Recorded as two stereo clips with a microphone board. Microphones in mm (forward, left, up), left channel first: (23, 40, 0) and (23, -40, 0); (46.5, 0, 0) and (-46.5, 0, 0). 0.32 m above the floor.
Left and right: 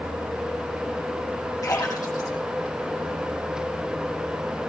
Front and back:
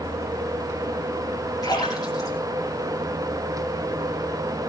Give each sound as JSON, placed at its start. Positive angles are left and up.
{"t": 1.6, "sound": "a splash", "azimuth_deg": 40, "distance_m": 9.0}